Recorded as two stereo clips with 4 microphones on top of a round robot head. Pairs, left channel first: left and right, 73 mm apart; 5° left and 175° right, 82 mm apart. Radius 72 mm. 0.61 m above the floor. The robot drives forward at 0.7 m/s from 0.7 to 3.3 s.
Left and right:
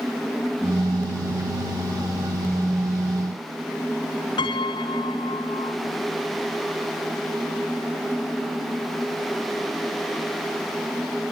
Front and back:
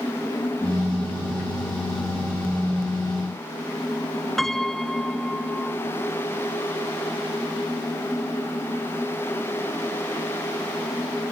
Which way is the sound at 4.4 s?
90° left.